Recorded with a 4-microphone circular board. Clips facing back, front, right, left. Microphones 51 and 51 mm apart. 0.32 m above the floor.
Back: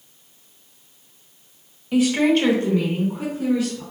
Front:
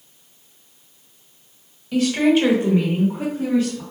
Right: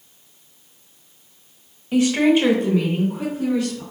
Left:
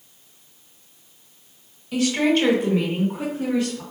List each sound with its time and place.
1.9 s a woman speaking: 120° right, 1.1 m; by 3.8 s 40° left, 2.0 m